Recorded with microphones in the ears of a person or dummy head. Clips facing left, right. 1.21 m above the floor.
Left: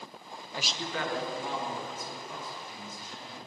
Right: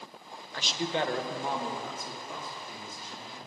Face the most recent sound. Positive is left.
turn(degrees=-70)  # may be behind; listen again after turning